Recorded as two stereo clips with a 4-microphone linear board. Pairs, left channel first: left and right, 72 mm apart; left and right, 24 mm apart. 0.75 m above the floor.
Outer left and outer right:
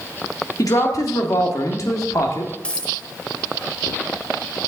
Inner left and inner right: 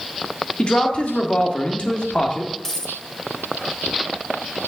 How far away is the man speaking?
About 1.5 m.